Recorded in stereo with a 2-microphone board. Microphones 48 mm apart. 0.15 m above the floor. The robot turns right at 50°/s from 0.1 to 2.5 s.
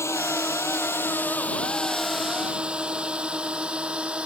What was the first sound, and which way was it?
A drone, 70° left (ahead or behind).